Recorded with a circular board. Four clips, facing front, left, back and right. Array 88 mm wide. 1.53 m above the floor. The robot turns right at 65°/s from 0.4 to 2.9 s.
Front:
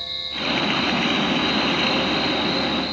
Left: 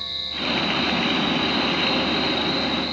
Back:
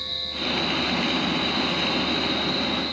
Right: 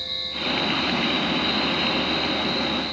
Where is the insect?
145° right, 6 m; by 2.9 s 20° left, 6 m.